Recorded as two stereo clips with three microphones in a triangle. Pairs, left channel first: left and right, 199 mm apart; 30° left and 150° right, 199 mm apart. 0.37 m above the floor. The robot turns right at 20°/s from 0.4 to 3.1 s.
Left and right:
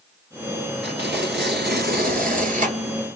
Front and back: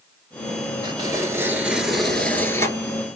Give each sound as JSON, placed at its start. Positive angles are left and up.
{"t": 0.8, "sound": "tearing paper", "azimuth_deg": -85, "distance_m": 1.1}